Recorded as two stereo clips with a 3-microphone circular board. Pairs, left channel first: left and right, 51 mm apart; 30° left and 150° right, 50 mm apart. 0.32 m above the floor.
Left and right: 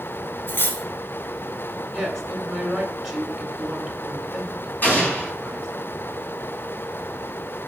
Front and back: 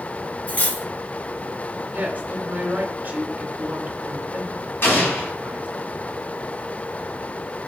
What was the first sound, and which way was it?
Cutlery clinking, 75° left.